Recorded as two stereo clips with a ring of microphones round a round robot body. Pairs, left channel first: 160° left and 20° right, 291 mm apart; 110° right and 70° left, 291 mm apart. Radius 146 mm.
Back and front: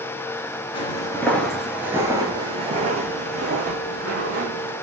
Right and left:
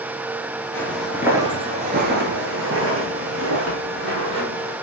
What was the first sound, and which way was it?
Footsteps, 175° right.